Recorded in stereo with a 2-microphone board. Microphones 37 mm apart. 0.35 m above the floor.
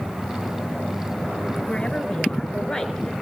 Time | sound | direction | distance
1.7 | a woman speaking | 25° left (ahead or behind) | 4 m